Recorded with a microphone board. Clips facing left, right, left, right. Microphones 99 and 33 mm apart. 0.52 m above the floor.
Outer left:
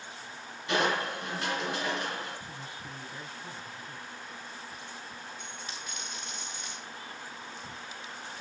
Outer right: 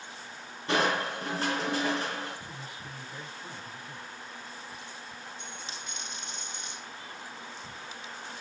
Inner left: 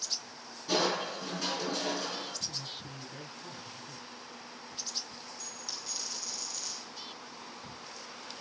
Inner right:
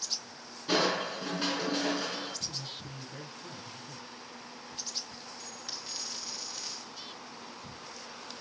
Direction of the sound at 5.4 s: 25° right (ahead or behind).